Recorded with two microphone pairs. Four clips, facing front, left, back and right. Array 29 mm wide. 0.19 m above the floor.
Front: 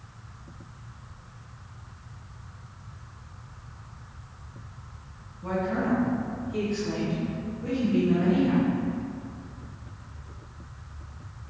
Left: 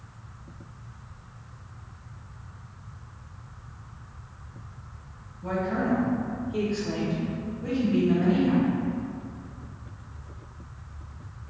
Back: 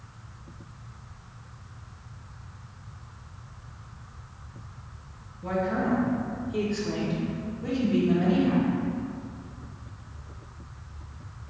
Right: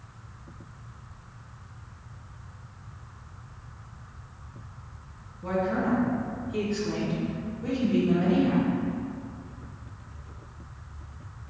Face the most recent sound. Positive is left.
turn(degrees=-125)